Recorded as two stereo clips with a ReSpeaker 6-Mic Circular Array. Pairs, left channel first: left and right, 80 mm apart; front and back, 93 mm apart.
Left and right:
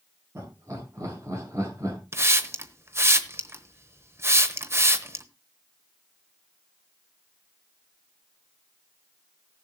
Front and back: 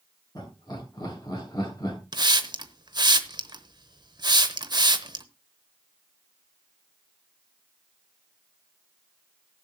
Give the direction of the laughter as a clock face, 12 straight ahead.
1 o'clock.